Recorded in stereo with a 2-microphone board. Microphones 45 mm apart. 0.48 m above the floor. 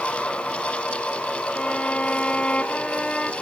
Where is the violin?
25° left (ahead or behind), 1.5 m.